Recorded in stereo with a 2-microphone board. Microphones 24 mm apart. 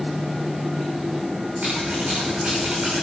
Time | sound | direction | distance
1.6 | scissors | 65° right (ahead or behind) | 7.5 m